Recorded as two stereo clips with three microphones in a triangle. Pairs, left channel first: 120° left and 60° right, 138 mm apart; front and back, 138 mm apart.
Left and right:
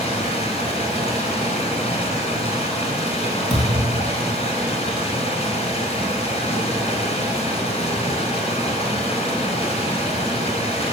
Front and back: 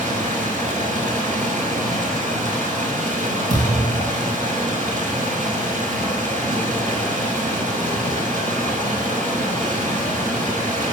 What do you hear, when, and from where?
0.0 s running water: 160° left, 1.6 m
3.5 s a thud: 170° right, 2.5 m